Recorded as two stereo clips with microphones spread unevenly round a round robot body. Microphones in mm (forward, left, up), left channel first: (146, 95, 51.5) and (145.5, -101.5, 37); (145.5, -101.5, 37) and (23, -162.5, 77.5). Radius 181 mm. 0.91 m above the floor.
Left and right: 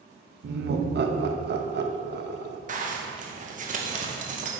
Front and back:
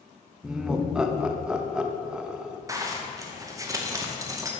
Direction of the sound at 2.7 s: 75° right.